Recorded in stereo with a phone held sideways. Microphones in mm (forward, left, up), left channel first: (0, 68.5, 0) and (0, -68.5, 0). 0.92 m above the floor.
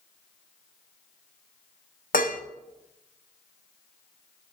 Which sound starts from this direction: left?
Dishes clattering, at 2.1 s.